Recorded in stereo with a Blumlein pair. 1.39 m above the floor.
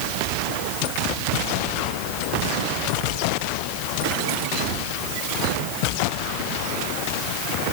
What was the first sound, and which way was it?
Only background noise.